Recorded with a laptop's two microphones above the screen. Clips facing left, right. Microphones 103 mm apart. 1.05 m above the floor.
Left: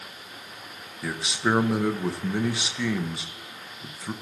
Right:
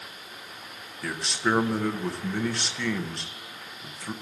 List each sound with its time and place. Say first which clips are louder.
1.0 s a man speaking: left 1 dB; 10° left (ahead or behind), 0.8 m